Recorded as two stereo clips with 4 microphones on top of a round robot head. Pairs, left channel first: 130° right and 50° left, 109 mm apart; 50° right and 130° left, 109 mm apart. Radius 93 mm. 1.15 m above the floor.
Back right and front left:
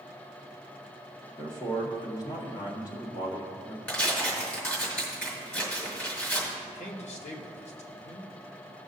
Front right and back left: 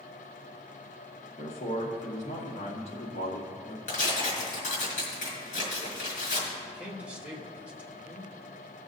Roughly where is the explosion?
No explosion in this recording.